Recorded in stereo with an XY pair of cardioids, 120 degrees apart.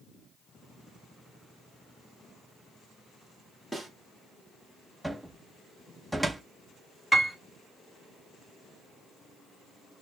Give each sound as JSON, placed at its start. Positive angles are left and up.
{"t": 3.7, "sound": "a snare drum", "azimuth_deg": 0, "distance_m": 2.0}
{"t": 5.0, "sound": "a cupboard door", "azimuth_deg": 0, "distance_m": 1.4}
{"t": 7.1, "sound": "a piano", "azimuth_deg": 10, "distance_m": 1.8}